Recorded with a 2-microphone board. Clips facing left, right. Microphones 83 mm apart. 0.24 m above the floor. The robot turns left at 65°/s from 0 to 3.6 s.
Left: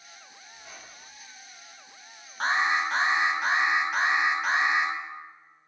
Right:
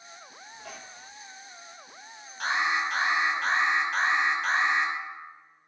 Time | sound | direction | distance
0.5 | a squeak | 60° right | 1.2 m
2.4 | an alarm | 90° left | 1.0 m